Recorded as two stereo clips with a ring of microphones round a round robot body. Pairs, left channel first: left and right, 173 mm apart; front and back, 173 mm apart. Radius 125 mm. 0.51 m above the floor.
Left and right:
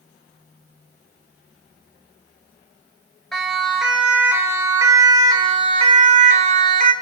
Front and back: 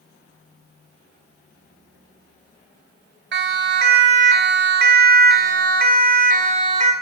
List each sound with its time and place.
3.3 s a siren: straight behind, 3 m; by 6.9 s 130° right, 2 m